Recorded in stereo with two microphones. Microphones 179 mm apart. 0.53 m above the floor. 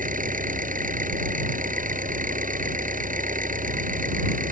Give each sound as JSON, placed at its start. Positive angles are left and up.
{"t": 0.0, "sound": "an engine running", "side_deg": -50}